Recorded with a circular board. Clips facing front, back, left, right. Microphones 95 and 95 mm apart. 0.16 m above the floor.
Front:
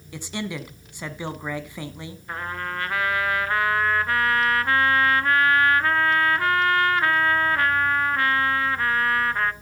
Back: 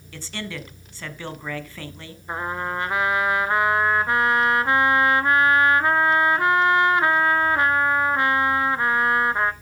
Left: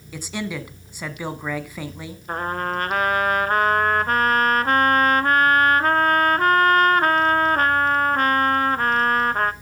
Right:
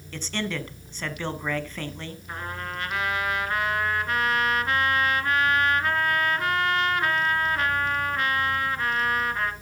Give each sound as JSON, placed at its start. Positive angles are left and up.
{"t": 0.1, "sound": "a man speaking", "azimuth_deg": 35, "distance_m": 1.1}
{"t": 2.3, "sound": "a trumpet", "azimuth_deg": 115, "distance_m": 0.6}